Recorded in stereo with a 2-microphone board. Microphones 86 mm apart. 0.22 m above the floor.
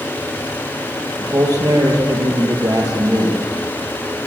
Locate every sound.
1.2 s a man speaking: 45° right (ahead or behind), 4.5 m